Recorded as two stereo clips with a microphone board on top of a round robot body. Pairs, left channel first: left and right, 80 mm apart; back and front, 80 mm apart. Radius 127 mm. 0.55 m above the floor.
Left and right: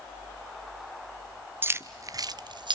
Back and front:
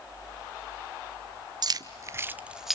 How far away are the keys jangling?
About 1.2 m.